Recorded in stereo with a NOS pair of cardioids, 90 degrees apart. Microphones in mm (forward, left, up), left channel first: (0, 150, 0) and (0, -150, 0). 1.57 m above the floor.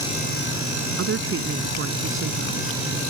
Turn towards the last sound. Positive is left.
turn(degrees=-45)